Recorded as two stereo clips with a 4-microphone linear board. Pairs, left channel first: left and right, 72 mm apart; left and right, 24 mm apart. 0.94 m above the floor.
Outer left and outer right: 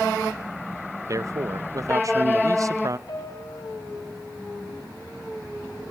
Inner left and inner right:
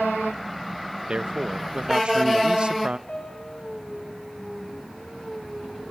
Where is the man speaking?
50° right (ahead or behind), 1.1 m.